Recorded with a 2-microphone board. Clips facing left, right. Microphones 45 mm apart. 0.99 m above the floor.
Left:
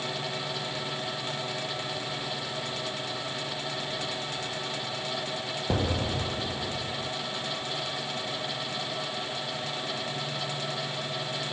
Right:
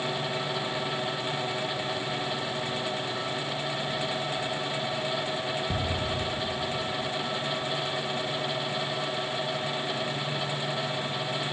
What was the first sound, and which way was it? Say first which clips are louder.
An explosion: left 1 dB; 65° left (ahead or behind).